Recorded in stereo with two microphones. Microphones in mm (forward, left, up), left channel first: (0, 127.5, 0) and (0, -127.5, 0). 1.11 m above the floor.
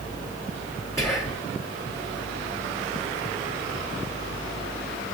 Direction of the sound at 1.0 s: 10° left (ahead or behind).